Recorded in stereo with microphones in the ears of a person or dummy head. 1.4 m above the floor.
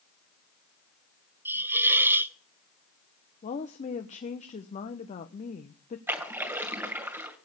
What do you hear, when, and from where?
1.4 s a hiss: 10° right (ahead or behind), 0.8 m
3.4 s a woman speaking: 35° left (ahead or behind), 1.2 m
6.1 s a splash: 15° right (ahead or behind), 2 m